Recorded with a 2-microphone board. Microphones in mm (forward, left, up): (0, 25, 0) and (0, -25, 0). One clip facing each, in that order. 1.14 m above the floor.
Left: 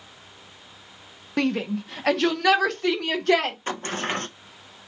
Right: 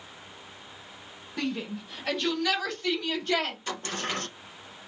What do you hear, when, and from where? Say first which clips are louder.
1.4 s a shout: left 8 dB; 60° left (ahead or behind), 0.9 m; by 3.6 s 80° left, 2 m
3.7 s a sliding door: left 5 dB; 35° left (ahead or behind), 0.6 m